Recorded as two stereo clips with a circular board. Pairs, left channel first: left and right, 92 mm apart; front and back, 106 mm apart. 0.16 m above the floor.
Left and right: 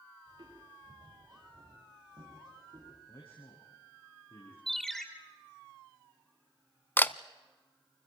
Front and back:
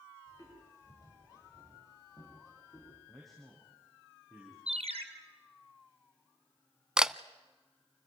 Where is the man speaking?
90° left, 6.5 m.